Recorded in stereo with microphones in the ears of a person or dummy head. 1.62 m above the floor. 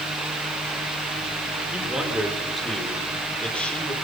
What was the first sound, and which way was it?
A man speaking, 10° right (ahead or behind).